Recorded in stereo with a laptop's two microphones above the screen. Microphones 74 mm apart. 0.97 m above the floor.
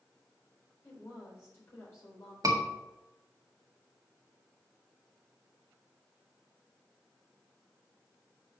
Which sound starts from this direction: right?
A scream, at 2.4 s.